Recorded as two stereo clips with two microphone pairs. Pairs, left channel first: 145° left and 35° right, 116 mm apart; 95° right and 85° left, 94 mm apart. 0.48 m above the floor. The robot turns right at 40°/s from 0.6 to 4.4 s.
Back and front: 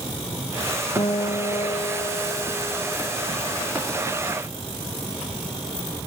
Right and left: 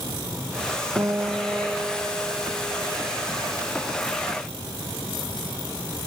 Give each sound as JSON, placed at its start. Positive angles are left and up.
{"t": 1.0, "sound": "a guitar", "azimuth_deg": 125, "distance_m": 1.3}